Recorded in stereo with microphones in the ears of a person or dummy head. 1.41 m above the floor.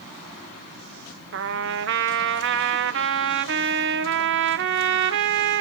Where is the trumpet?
60° right (ahead or behind), 0.6 m.